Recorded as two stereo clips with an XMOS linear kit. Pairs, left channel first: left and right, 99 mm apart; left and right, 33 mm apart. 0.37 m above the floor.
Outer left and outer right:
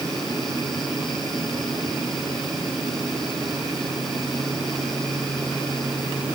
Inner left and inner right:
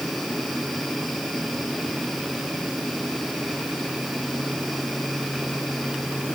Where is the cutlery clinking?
No cutlery clinking in this recording.